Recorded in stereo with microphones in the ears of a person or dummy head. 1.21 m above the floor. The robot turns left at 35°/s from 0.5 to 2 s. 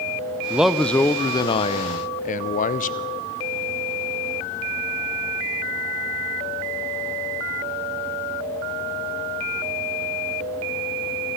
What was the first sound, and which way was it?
A man speaking, 175° right.